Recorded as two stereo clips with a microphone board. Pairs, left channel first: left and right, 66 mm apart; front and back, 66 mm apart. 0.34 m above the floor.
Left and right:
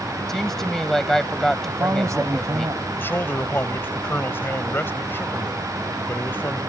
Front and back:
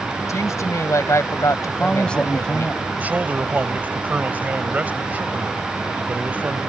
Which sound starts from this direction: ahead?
A woman speaking, at 0.3 s.